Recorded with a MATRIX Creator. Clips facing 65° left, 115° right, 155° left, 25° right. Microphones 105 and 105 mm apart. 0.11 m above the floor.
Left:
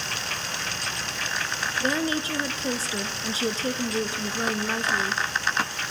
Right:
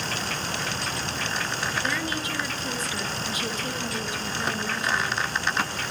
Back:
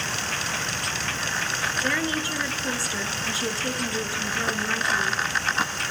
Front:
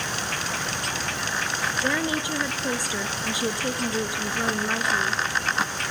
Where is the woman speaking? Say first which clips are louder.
Left 3 dB, front 1 dB; 40° left, 1.2 m.